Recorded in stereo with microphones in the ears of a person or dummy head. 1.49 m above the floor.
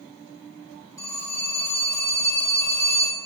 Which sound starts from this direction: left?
A phone ringing, at 1.0 s.